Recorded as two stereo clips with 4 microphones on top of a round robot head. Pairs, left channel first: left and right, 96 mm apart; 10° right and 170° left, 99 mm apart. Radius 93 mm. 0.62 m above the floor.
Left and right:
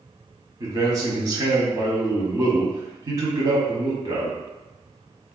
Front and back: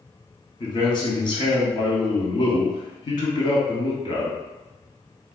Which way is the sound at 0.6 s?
40° right.